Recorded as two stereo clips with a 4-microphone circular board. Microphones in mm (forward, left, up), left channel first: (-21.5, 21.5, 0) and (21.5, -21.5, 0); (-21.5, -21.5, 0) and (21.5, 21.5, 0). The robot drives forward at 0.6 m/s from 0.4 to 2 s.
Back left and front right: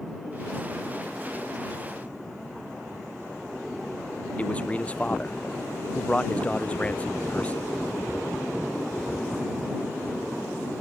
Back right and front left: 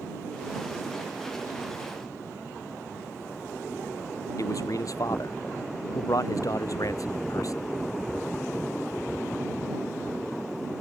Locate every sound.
4.4 s a man speaking: 155° right